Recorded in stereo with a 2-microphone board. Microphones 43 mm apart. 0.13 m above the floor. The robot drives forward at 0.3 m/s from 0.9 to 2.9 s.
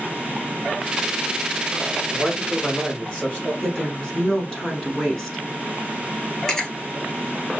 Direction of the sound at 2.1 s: 25° left (ahead or behind).